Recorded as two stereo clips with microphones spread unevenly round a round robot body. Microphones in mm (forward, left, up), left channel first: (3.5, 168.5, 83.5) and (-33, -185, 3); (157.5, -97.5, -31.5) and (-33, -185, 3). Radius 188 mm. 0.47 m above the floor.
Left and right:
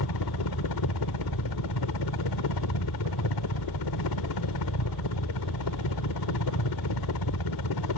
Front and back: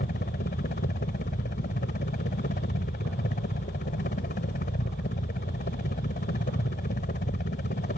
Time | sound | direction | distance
0.0 | a helicopter | 65° left | ?